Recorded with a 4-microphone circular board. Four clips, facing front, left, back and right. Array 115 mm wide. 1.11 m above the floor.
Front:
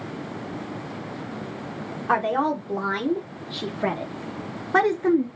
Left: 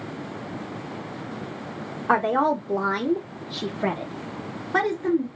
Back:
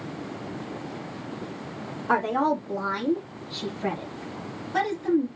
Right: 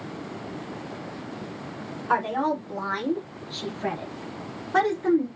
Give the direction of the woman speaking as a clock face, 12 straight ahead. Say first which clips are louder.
Left 4 dB, front 1 dB; 10 o'clock.